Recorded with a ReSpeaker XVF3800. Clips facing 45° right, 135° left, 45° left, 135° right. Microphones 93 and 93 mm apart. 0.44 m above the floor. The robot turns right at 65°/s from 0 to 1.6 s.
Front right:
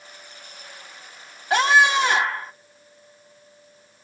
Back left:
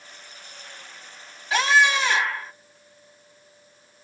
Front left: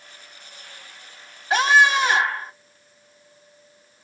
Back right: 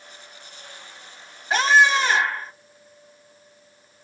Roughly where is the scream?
Ahead right.